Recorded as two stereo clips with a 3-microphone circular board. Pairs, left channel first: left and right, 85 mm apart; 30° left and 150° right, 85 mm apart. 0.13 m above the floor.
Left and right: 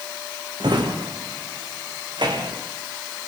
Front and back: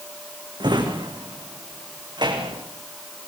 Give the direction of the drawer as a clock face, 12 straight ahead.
4 o'clock.